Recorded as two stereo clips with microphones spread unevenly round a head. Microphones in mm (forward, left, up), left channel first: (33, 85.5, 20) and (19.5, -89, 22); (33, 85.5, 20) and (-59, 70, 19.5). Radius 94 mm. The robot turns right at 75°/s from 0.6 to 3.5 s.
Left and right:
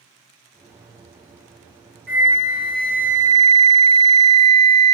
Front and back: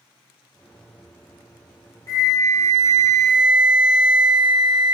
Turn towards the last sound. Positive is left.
turn(degrees=115)